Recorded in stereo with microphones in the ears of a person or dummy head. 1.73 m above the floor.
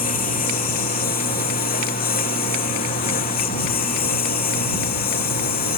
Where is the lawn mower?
50° left (ahead or behind); by 5.8 s 55° left (ahead or behind).